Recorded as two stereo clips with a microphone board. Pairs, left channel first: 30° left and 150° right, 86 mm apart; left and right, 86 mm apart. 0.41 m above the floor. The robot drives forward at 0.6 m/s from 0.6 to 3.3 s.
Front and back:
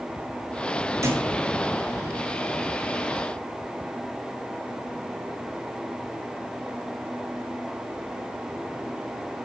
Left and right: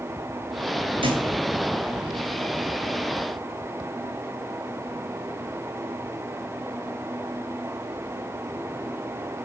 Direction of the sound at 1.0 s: 95° right.